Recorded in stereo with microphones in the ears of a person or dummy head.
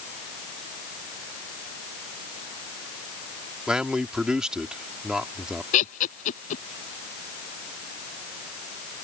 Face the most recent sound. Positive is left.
turn(degrees=45)  # may be behind; listen again after turning